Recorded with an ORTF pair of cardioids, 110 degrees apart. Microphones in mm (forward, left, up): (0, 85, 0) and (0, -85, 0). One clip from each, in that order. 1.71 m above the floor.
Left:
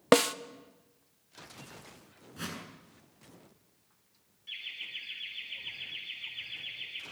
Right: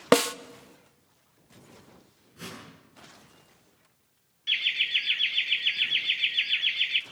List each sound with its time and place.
0.1 s a snare drum: 5° right, 0.6 m
2.4 s a whoosh: 40° left, 7.5 m
4.5 s laughter: 70° right, 0.5 m